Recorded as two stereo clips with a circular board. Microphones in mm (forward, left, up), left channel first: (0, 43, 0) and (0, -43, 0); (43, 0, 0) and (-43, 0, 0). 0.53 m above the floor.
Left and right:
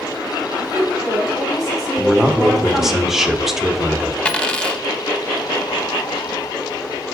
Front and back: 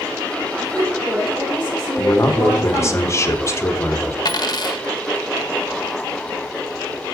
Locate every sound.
0.6 s a woman speaking: straight behind, 4 m
2.0 s a man speaking: 5° right, 0.8 m
4.2 s a dropped coin: 15° left, 0.5 m